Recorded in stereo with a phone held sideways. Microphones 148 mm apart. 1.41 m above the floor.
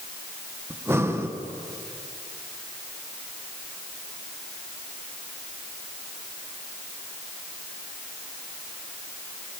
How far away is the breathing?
About 1.3 m.